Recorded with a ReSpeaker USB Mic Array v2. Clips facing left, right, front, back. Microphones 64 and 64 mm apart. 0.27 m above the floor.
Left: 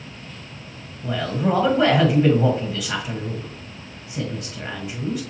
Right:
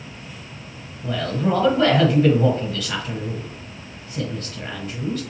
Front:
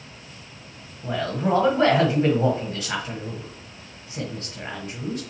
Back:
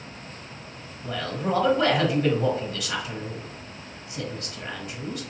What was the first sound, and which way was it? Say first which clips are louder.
A man speaking: even, front 4 dB; 25° left.